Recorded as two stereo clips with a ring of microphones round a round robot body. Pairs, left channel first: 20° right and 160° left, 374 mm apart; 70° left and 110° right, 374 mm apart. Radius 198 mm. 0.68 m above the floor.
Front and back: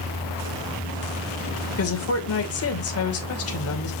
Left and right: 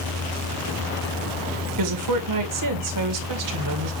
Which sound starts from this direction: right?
A woman speaking, at 1.7 s.